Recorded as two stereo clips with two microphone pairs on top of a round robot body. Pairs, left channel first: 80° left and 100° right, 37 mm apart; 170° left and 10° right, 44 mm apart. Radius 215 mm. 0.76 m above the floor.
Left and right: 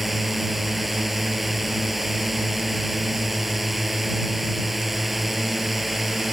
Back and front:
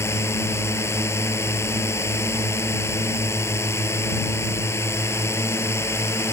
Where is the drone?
170° left.